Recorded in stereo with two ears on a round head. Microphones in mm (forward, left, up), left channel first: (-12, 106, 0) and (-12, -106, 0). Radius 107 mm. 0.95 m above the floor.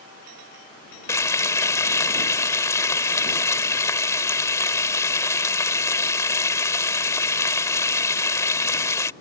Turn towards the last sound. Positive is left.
turn(degrees=15)  # may be behind; listen again after turning